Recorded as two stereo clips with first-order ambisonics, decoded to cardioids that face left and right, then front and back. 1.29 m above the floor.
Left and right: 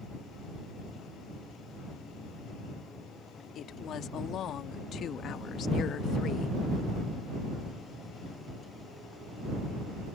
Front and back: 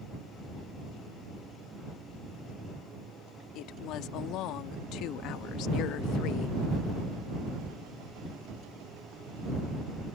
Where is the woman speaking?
35° left; by 6.6 s 30° left.